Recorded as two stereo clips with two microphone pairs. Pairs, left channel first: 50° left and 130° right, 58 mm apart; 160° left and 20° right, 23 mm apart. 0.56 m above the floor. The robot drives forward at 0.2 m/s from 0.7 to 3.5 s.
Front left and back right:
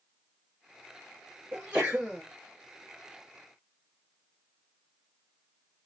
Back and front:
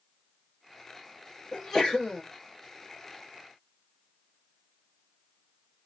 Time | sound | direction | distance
1.5 | a sneeze | 170° right | 1.0 m